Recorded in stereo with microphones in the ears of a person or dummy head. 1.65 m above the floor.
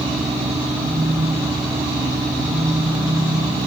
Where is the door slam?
No door slam in this recording.